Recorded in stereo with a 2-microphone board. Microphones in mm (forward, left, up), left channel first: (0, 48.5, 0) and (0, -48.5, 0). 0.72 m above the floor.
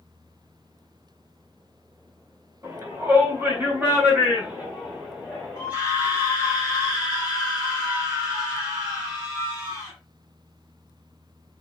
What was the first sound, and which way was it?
A shout, 25° right (ahead or behind).